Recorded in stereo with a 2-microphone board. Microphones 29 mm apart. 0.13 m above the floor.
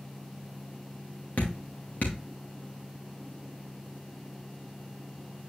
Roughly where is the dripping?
Left.